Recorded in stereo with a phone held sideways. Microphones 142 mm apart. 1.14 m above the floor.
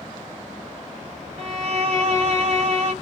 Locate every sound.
1.4 s a violin: 50° right (ahead or behind), 0.9 m